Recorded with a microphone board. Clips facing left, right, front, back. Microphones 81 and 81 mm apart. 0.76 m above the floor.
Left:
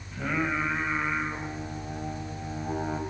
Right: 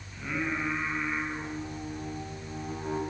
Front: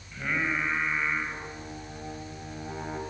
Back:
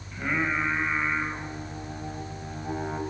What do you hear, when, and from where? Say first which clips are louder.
0.1 s singing: left 4 dB, back 2 dB; 100° left, 5 m